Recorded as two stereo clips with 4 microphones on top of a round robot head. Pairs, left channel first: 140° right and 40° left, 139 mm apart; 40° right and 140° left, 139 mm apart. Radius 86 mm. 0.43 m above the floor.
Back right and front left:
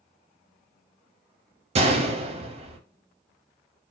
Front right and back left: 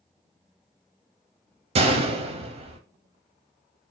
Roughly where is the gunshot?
Left.